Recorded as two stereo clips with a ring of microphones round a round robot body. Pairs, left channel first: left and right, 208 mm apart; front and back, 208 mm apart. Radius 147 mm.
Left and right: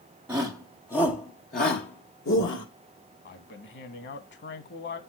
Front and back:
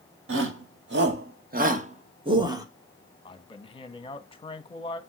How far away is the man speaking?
About 1.4 m.